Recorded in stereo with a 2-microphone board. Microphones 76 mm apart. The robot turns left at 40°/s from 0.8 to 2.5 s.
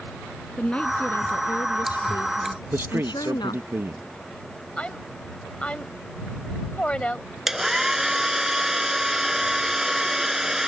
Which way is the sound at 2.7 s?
35° right (ahead or behind).